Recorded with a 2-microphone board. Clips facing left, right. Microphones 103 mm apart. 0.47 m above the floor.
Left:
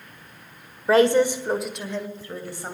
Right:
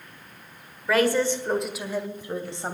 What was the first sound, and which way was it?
A woman speaking, 35° left (ahead or behind).